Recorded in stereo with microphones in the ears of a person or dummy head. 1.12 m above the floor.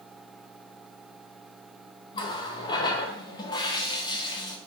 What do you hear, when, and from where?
2.1 s a running tap: 25° left (ahead or behind), 0.5 m